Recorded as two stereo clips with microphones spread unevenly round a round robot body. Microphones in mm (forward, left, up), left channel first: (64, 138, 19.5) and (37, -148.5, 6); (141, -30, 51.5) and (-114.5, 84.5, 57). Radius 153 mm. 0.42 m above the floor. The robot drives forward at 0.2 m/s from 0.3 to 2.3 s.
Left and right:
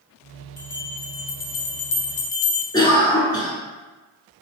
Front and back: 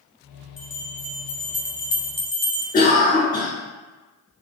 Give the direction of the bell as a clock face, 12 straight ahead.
10 o'clock.